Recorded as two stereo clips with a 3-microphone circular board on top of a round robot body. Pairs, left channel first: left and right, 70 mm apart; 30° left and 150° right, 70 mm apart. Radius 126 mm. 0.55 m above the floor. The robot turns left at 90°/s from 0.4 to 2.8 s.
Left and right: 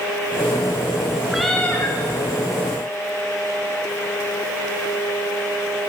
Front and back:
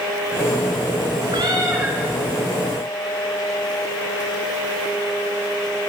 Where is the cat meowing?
170° right, 1.3 m; by 2.0 s 130° left, 1.3 m.